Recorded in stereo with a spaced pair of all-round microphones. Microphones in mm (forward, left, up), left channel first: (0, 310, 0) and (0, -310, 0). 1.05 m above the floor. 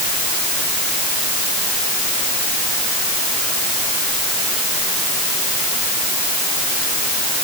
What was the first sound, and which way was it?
Only background noise.